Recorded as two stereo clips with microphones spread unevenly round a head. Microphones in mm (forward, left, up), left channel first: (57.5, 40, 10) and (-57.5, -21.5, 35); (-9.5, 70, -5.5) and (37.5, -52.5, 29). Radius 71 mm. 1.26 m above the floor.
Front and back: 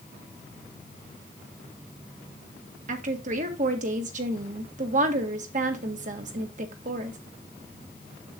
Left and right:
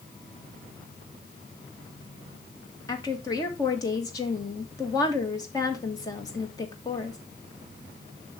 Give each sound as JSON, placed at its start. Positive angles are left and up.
{"t": 2.9, "sound": "a woman speaking", "azimuth_deg": 175, "distance_m": 1.8}